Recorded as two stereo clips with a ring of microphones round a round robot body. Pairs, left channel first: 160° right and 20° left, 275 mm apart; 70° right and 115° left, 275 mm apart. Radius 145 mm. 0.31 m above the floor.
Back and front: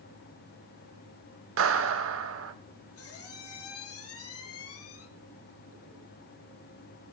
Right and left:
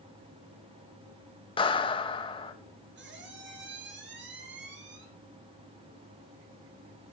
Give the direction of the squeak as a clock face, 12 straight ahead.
7 o'clock.